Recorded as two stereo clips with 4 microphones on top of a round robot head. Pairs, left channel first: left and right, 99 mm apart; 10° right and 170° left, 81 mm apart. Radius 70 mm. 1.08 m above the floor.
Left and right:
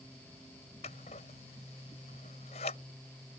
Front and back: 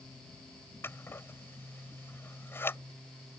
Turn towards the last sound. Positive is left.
turn(degrees=55)